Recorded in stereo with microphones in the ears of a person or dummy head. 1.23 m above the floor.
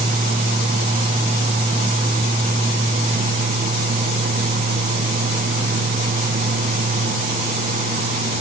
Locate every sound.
Only background noise.